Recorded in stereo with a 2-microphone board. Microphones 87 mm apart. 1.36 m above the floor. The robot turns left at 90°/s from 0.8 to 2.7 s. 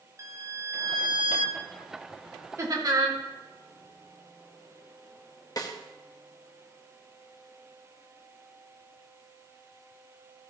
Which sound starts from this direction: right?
Laughter, at 2.6 s.